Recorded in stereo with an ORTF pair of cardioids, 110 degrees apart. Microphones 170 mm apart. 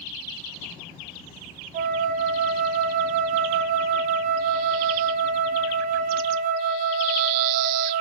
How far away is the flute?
About 1.3 m.